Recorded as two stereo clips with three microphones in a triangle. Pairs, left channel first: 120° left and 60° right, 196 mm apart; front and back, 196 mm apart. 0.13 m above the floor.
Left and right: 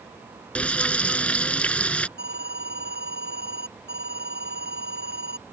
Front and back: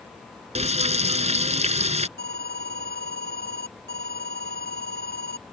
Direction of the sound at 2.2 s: 30° right.